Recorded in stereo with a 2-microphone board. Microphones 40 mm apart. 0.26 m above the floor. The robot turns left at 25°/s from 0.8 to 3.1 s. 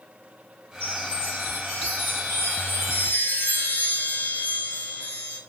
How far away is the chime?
About 5 m.